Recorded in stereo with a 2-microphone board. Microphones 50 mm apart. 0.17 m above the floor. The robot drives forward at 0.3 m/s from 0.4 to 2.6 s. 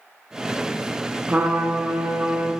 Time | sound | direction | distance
1.3 | a trumpet | 35° right (ahead or behind) | 1.0 m